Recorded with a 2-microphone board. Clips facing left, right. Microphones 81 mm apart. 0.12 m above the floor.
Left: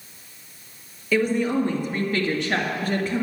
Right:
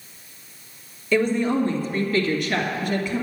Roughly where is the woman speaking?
Centre.